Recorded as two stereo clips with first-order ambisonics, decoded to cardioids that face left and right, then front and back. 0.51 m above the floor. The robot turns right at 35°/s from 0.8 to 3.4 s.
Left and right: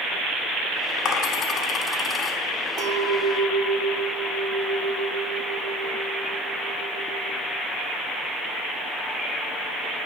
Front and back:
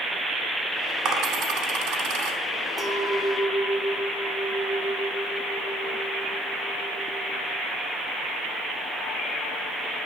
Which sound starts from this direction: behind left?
A dropped coin, at 1.1 s.